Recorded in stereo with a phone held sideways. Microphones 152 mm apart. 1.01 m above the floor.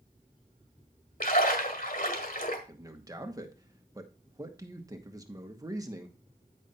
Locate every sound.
1.2 s a splash: 65° left (ahead or behind), 1.7 m
2.7 s a man speaking: 20° right (ahead or behind), 1.2 m